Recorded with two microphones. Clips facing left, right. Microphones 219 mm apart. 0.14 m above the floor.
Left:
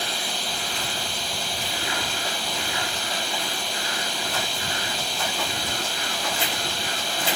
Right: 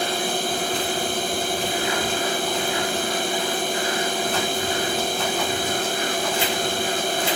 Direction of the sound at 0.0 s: 55° right (ahead or behind).